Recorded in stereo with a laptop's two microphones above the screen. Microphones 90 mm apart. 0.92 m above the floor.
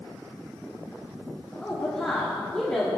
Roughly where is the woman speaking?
Centre.